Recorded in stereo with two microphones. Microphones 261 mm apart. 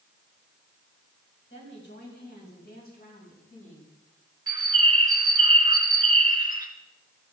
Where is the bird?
15° right (ahead or behind), 1.9 m.